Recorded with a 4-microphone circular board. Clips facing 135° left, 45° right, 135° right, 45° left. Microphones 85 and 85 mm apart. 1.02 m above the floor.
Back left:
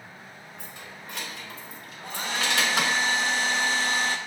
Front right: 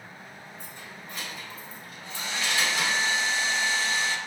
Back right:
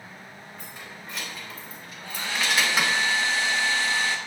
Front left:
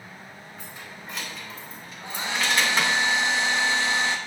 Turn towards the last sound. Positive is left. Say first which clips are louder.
# back left 3 dB, front left 1 dB
turn(degrees=110)